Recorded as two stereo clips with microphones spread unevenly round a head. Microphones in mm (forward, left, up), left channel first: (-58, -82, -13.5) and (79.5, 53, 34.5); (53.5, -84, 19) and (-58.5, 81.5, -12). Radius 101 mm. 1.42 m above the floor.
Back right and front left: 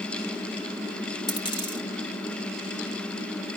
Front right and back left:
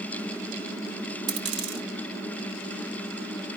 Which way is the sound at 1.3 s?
150° left.